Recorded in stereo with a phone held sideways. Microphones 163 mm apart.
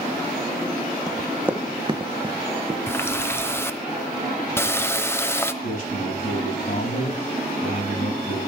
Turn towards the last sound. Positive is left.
turn(degrees=65)  # may be behind; listen again after turning